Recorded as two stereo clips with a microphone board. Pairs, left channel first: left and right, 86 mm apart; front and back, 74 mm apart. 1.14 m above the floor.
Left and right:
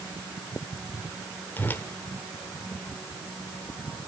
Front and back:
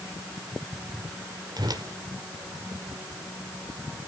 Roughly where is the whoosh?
Behind left.